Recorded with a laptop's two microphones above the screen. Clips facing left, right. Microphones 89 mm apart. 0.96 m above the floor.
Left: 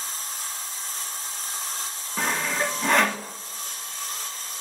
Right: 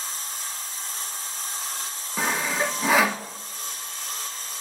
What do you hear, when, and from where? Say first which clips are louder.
2.2 s sawing: right 1 dB; 5° right (ahead or behind), 1.5 m